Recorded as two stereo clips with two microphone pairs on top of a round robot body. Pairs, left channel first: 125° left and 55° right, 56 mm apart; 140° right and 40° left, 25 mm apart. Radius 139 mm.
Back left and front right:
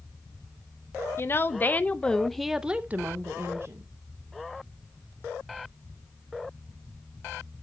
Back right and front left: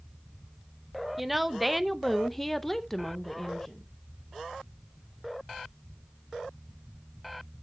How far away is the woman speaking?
About 1.1 m.